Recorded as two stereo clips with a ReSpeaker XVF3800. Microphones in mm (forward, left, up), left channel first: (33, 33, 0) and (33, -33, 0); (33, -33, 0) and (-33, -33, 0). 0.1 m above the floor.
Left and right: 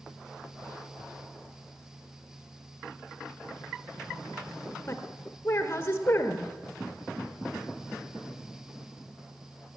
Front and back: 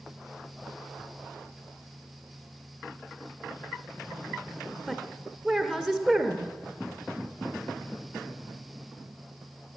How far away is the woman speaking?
About 1.3 m.